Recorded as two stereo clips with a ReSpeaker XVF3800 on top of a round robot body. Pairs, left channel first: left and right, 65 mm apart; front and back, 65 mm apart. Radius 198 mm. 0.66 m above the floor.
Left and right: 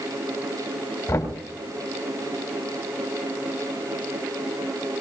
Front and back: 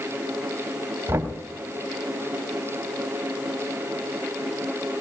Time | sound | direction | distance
1.1 | knocking | 120° left | 3 m